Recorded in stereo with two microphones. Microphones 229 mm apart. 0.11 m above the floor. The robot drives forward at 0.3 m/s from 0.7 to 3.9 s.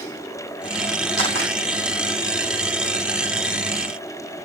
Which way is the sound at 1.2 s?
70° right (ahead or behind).